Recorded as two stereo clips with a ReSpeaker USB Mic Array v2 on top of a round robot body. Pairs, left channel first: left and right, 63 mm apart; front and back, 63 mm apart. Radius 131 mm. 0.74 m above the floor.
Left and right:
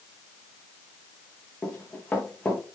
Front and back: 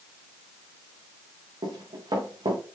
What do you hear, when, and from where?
1.6 s running footsteps: 165° left, 4 m